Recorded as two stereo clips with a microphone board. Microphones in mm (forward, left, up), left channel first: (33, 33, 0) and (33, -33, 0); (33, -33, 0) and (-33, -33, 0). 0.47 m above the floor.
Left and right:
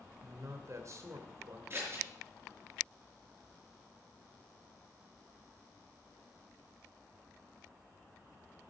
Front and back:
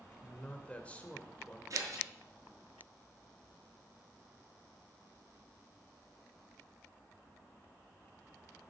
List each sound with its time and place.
0.2 s a man speaking: 65° right, 2 m
1.7 s scissors: 145° right, 6 m